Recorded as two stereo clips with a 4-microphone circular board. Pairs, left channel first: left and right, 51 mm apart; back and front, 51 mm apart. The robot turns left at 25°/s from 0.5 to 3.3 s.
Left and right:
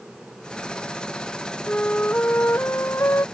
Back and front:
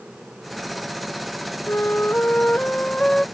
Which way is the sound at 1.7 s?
145° left.